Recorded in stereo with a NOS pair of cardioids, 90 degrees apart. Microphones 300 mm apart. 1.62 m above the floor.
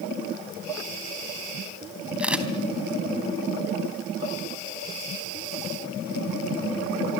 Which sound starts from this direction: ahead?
A camera shutter, at 2.2 s.